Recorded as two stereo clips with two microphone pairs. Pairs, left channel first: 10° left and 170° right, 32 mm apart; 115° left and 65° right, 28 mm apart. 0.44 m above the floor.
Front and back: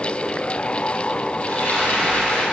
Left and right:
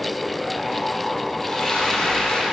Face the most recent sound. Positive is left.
turn(degrees=45)